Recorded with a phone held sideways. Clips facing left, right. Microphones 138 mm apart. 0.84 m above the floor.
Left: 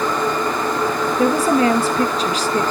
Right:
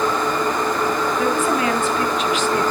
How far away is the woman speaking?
About 1.0 m.